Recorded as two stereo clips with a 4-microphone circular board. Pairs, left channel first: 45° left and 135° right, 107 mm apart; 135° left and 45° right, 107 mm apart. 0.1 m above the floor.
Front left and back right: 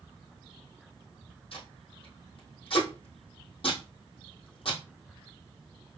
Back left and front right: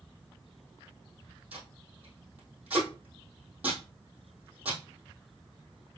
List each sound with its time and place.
1.5 s tape being pulled: 30° left, 3 m